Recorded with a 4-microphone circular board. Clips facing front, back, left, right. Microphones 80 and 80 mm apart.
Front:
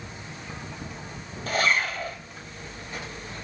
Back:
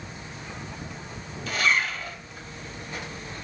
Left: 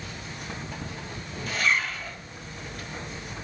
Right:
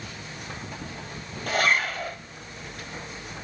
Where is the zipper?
50° right, 2 m.